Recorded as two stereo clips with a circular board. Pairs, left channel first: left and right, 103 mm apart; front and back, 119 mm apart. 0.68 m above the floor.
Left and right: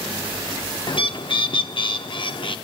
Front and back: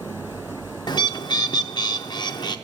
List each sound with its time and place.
0.9 s a bird: 50° left, 0.5 m